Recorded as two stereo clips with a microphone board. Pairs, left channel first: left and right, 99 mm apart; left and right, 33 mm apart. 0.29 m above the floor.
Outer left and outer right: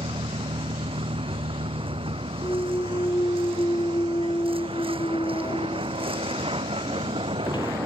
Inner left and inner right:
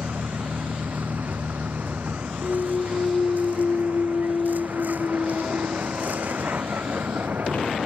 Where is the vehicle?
65° right (ahead or behind).